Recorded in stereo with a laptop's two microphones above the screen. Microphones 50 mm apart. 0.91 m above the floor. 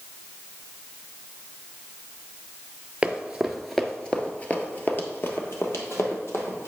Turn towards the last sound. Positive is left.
turn(degrees=65)  # may be behind; listen again after turning